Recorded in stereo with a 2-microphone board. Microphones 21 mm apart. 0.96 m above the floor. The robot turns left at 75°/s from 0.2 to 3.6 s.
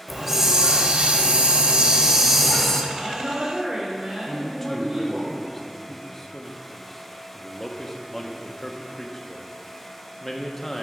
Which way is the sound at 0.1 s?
Straight ahead.